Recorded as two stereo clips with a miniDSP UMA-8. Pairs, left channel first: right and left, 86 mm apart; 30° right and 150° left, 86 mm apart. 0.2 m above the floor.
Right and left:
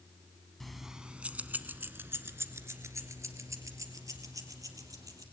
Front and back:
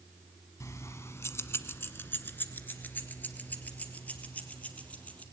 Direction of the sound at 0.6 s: 5° right.